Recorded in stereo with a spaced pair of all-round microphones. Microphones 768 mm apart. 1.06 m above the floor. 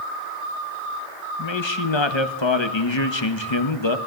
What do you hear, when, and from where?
1.4 s a man speaking: 35° left (ahead or behind), 1.4 m